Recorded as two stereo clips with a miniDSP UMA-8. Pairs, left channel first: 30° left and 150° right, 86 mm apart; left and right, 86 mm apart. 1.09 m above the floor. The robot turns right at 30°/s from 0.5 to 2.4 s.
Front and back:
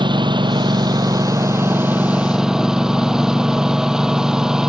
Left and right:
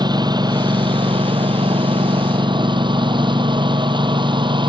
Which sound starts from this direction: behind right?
A lawn mower, at 0.0 s.